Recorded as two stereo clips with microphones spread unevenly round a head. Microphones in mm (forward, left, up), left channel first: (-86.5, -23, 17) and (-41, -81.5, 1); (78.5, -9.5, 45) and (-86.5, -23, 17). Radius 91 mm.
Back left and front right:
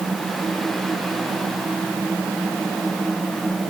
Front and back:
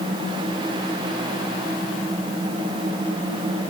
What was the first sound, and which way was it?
Only background noise.